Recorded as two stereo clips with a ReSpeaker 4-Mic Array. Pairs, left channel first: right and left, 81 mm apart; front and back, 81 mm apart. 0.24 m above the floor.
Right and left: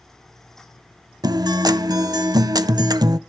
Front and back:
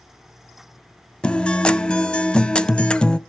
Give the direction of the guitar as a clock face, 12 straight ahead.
9 o'clock.